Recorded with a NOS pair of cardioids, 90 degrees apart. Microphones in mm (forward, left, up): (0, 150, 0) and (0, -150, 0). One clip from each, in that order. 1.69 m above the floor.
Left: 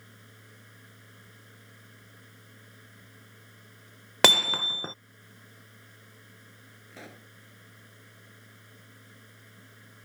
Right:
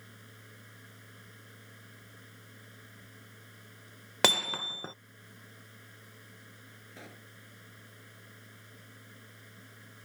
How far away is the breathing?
I don't hear breathing.